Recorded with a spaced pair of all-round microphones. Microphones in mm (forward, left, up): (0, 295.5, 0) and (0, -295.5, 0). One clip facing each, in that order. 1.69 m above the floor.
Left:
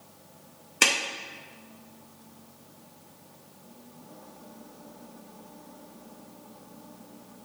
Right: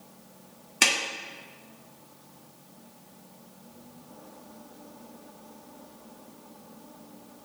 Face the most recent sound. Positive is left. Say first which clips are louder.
# left 1 dB
turn(degrees=-10)  # may be behind; listen again after turning